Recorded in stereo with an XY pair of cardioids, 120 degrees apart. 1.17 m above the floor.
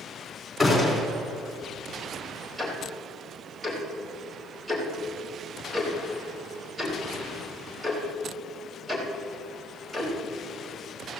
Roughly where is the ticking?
Ahead.